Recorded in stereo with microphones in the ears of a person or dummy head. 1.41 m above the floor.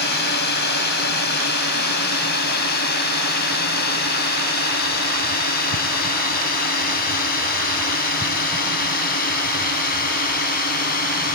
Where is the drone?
60° left (ahead or behind); by 11.3 s 50° left (ahead or behind).